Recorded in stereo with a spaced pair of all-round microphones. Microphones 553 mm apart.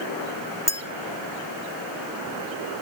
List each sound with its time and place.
0.7 s a clink: 5° left (ahead or behind), 0.8 m